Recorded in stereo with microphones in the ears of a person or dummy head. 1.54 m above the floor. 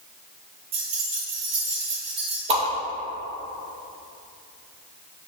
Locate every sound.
0.7 s keys jangling: 35° right (ahead or behind), 1.4 m
2.5 s a whoosh: 35° right (ahead or behind), 2.0 m